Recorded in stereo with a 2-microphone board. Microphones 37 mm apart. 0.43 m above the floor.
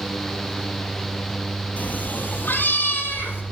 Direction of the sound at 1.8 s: 50° left (ahead or behind).